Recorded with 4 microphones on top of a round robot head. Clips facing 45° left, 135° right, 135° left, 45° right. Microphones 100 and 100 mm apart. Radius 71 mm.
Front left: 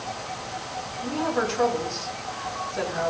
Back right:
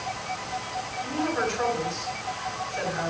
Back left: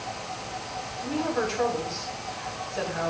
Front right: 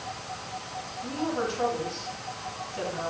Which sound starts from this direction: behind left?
A woman speaking, at 1.0 s.